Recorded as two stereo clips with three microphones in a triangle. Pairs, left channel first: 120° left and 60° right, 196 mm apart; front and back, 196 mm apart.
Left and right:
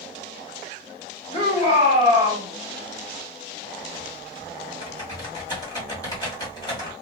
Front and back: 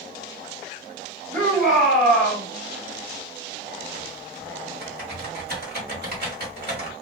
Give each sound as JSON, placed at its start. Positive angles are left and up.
{"t": 1.3, "sound": "a shout", "azimuth_deg": 160, "distance_m": 1.3}
{"t": 3.8, "sound": "typing on a keyboard", "azimuth_deg": -175, "distance_m": 1.2}